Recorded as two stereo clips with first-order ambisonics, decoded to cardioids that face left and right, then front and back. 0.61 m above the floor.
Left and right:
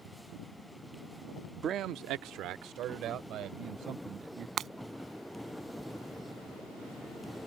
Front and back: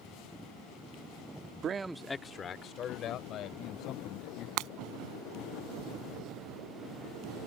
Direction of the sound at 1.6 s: 140° right.